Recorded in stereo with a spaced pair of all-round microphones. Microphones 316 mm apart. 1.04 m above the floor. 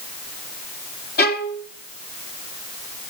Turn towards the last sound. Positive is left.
turn(degrees=30)  # may be behind; listen again after turning